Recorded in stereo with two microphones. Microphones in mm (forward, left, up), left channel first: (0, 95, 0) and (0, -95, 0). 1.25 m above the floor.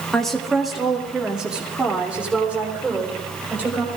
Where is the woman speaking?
5° left (ahead or behind), 2 m; by 3.9 s 10° right (ahead or behind), 5 m.